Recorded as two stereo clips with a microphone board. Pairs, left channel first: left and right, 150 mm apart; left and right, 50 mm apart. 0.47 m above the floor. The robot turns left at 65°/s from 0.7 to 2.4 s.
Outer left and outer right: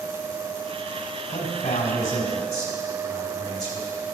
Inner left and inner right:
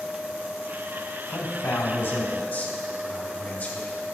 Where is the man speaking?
105° left, 3.5 m; by 3.9 s 30° left, 3.5 m.